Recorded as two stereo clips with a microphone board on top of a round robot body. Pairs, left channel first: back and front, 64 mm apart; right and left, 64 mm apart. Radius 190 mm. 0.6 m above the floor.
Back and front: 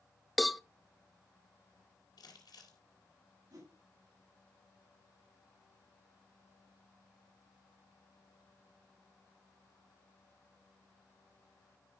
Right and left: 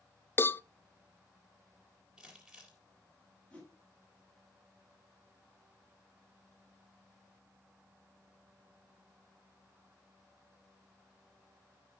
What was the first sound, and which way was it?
A cowbell, 90° right.